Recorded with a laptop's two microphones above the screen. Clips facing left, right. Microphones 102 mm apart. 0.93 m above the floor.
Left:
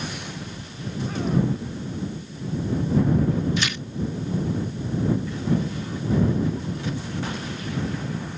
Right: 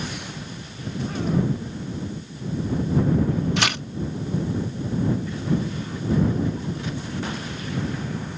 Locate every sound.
3.6 s tearing paper: 70° right (ahead or behind)